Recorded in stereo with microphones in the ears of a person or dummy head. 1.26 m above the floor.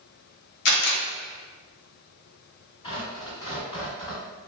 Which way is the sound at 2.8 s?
30° left (ahead or behind).